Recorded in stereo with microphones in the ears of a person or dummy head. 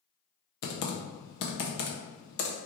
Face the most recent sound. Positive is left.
turn(degrees=60)  # may be behind; listen again after turning